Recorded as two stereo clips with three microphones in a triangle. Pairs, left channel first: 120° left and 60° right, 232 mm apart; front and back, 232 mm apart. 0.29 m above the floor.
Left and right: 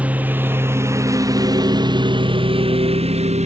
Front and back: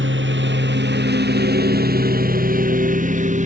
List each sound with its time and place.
0.0 s a lawn mower: 145° right; by 3.5 s 120° right